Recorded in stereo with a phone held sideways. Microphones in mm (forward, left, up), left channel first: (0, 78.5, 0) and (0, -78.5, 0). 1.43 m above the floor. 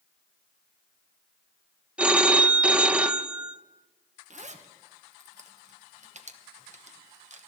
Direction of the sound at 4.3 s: 50° right (ahead or behind).